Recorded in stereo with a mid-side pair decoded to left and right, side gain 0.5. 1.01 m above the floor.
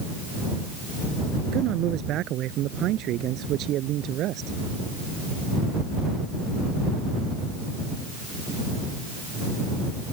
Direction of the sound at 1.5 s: 70° right.